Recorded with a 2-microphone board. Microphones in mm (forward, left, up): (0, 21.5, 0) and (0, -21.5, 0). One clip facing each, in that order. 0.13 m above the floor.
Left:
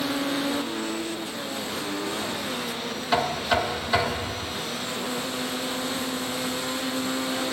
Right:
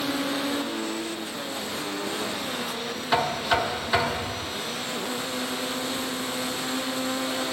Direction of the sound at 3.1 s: 10° right (ahead or behind).